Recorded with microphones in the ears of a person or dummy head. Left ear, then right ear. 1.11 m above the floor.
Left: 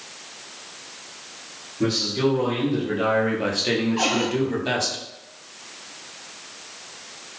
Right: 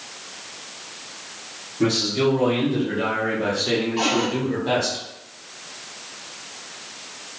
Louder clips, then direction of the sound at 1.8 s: Right 2 dB; 10° right (ahead or behind).